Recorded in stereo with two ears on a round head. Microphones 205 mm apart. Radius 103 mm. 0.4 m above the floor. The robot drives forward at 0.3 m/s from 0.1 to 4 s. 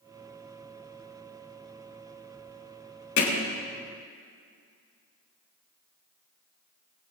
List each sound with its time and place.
3.2 s hammering: 55° left (ahead or behind), 3.5 m